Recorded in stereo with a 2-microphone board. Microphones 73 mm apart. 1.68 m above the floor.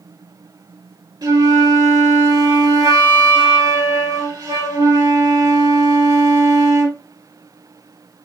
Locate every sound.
1.2 s a flute: 70° right (ahead or behind), 4.5 m